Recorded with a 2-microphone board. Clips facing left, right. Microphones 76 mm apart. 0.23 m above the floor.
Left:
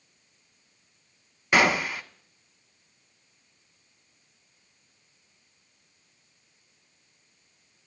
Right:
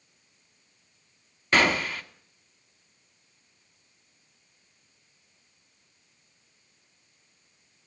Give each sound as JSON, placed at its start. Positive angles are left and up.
{"t": 1.5, "sound": "a gunshot", "side_deg": 10, "distance_m": 0.6}